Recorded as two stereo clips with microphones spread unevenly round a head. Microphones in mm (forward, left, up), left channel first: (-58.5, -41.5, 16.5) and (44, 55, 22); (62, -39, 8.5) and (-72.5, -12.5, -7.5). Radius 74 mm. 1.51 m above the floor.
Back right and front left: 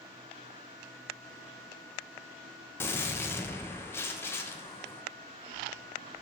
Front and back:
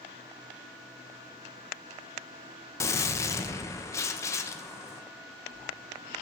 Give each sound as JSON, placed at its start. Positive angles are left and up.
{"t": 2.8, "sound": "a gunshot", "azimuth_deg": -65, "distance_m": 0.7}